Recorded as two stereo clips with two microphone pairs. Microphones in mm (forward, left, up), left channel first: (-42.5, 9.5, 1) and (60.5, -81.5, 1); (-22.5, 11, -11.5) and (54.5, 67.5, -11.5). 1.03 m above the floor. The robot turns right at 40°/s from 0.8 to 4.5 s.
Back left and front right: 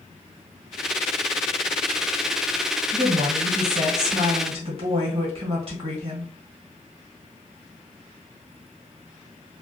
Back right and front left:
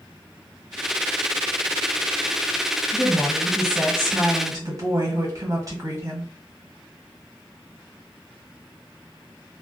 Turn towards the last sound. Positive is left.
turn(degrees=-5)